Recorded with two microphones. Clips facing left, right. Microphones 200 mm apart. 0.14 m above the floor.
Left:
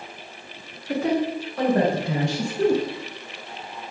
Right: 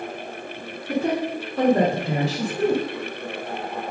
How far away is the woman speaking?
About 1.7 m.